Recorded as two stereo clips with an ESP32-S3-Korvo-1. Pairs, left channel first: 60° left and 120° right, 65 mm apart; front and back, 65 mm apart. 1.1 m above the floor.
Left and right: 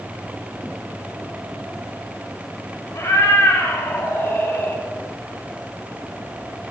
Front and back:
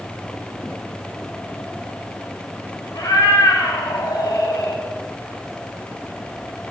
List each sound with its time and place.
2.9 s a cat meowing: 25° left, 3 m; by 4.8 s 5° left, 2 m